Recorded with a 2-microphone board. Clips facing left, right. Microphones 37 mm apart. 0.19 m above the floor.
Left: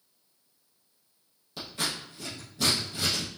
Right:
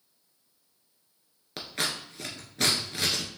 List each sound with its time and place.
1.6 s scissors: 70° right (ahead or behind), 1.4 m